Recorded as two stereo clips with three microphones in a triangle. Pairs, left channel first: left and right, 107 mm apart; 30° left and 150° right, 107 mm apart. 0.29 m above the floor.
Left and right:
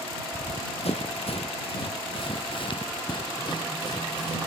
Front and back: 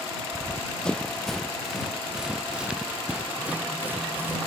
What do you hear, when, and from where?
0.3 s running footsteps: 105° left; by 4.4 s 140° left